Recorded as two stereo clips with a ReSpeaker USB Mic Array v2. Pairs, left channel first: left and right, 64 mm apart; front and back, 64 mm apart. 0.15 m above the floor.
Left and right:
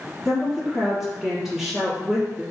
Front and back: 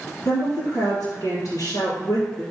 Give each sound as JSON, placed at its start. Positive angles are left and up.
{"t": 0.2, "sound": "a woman speaking", "azimuth_deg": -10, "distance_m": 3.0}